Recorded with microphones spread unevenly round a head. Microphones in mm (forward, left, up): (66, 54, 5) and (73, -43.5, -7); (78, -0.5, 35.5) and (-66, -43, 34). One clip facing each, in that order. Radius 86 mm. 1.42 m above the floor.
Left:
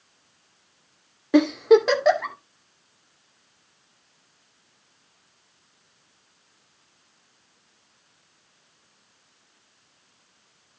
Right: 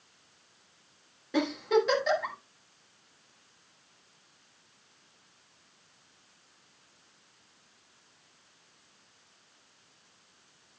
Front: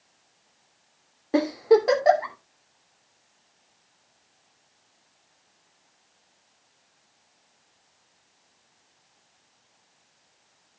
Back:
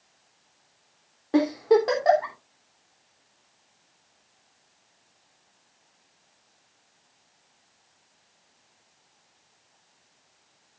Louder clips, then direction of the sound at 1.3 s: Left 10 dB, front 1 dB; 100° left.